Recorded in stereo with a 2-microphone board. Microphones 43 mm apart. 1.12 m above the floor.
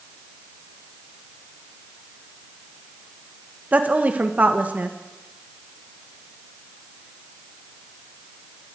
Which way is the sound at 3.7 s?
35° right (ahead or behind).